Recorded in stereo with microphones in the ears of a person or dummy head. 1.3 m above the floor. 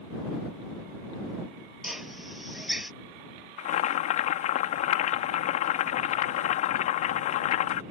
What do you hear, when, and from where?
1.8 s a drill: 5° right (ahead or behind)
3.6 s boiling: 40° left (ahead or behind)